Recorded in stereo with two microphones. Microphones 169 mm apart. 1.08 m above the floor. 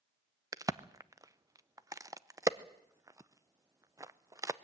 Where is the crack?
20° right (ahead or behind), 0.6 m.